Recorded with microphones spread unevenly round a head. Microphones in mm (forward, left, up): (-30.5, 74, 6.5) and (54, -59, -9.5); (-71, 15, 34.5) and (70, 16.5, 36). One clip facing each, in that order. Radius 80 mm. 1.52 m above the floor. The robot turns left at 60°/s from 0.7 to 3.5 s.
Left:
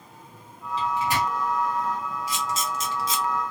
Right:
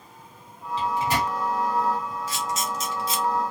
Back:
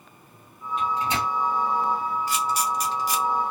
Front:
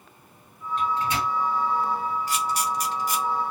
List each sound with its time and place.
0.8 s a microwave: 95° right, 2.5 m; by 1.3 s 130° right, 2.5 m
2.3 s a camera shutter: 160° right, 1.0 m; by 3.2 s 145° left, 1.0 m